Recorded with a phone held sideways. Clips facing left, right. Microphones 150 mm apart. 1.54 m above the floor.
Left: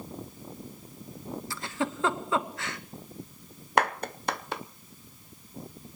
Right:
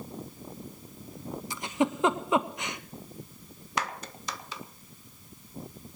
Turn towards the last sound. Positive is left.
turn(degrees=60)  # may be behind; listen again after turning